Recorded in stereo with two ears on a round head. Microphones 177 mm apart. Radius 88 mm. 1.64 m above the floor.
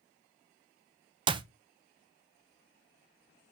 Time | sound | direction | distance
1.3 | a clap | 25° right (ahead or behind) | 0.6 m